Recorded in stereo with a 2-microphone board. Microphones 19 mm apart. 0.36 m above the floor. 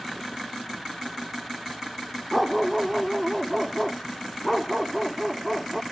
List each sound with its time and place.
2.3 s a dog barking: 5° right (ahead or behind)